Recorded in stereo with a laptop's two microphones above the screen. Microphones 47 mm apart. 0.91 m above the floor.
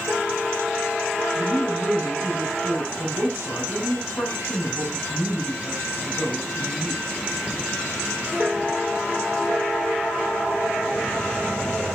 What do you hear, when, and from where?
1.4 s a man speaking: 75° left (ahead or behind), 6 m